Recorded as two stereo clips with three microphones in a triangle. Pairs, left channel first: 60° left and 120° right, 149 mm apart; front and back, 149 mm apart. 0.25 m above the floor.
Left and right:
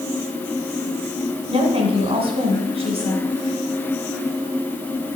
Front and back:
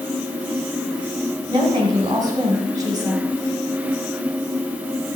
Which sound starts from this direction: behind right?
A woman speaking, at 1.5 s.